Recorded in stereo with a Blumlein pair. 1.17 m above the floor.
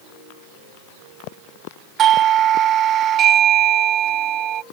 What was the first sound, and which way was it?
A doorbell, 30° right.